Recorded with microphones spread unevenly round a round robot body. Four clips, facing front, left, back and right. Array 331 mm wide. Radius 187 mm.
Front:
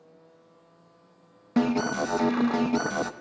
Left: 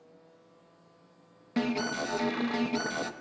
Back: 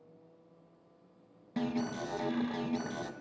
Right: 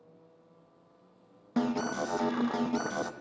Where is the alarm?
5° right, 0.6 m.